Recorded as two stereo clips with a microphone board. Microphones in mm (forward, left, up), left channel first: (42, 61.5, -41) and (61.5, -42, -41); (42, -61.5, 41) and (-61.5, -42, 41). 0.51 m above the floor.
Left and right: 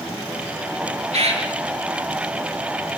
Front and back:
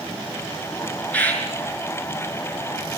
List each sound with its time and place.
1.1 s a bird: 85° right, 6 m